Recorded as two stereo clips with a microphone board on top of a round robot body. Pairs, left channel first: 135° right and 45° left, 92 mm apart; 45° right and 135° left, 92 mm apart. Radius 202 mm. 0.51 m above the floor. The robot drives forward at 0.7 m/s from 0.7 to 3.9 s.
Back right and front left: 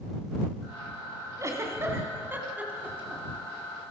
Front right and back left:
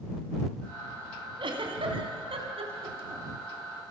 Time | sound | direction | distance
1.4 | a giggle | 105° left | 3 m